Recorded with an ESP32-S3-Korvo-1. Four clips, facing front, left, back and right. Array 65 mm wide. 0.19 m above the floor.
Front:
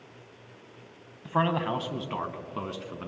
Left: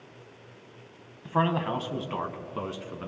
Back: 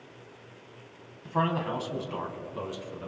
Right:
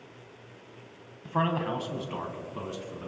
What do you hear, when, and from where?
1.2 s a man speaking: 25° left, 1.2 m; by 3.1 s 40° left, 1.9 m